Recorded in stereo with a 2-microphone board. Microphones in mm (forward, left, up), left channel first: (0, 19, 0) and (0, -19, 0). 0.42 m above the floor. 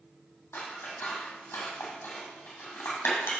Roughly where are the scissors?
Left.